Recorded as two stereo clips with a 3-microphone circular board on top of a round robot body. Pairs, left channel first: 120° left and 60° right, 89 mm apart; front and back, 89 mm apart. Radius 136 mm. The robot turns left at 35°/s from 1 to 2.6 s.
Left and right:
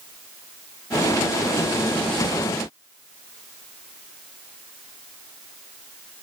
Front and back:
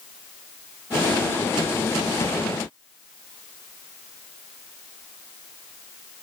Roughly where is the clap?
No clap in this recording.